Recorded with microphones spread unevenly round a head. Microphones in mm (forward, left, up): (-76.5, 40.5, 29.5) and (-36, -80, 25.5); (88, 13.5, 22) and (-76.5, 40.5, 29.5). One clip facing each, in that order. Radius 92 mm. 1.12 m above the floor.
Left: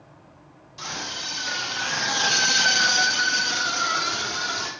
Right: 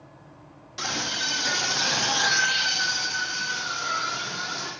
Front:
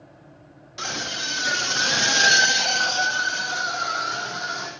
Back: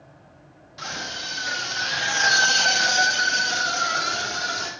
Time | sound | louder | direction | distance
0.8 | a scream | right 3 dB, front 3 dB | 40° right | 2 m